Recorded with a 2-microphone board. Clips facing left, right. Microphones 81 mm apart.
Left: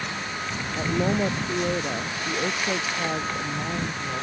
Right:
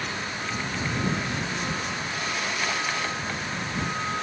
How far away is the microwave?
I don't hear a microwave.